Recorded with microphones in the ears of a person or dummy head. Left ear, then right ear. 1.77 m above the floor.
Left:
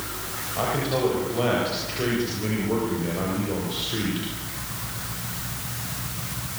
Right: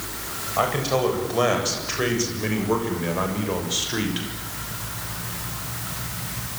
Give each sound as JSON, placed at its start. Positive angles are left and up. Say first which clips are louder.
{"t": 0.6, "sound": "a man speaking", "louder": "right 3 dB", "side_deg": -50, "distance_m": 8.5}